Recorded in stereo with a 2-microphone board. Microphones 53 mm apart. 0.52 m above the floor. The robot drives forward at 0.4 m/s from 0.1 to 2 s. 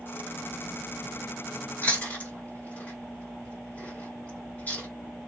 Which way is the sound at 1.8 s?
30° left (ahead or behind).